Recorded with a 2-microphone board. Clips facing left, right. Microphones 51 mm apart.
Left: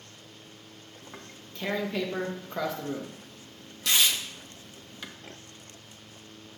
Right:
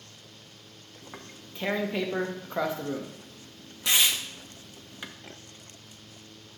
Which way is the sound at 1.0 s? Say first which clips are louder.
Right 2 dB; 20° right (ahead or behind).